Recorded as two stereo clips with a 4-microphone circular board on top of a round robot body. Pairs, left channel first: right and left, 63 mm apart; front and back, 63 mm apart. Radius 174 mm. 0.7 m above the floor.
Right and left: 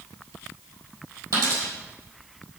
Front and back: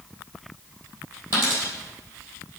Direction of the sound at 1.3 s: 130° left.